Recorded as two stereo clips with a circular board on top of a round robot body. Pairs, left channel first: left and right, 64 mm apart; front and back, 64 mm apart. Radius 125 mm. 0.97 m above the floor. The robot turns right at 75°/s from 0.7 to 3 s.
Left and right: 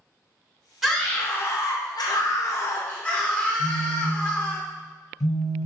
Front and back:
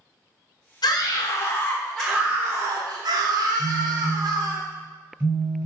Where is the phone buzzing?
125° left, 4.5 m.